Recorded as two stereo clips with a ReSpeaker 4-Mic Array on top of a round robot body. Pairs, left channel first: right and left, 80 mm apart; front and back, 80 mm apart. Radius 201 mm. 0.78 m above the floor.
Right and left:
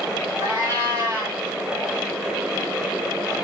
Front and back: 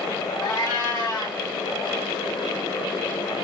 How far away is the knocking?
No knocking in this recording.